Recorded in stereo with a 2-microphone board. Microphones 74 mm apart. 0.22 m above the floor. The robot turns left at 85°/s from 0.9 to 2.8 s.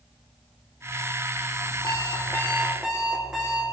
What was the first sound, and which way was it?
An alarm clock, 70° left.